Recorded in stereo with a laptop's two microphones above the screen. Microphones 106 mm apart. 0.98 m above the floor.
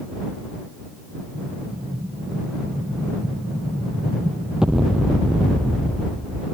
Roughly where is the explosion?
Centre.